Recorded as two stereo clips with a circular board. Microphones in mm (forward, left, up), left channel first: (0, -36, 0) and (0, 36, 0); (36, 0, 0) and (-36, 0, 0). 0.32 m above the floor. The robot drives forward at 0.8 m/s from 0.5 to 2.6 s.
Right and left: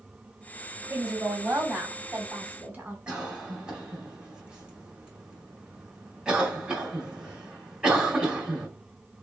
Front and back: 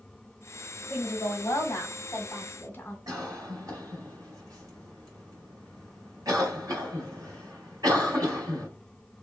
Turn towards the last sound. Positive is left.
turn(degrees=165)